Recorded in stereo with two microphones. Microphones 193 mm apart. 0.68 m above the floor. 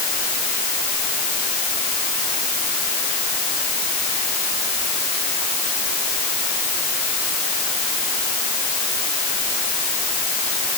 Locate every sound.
Only background noise.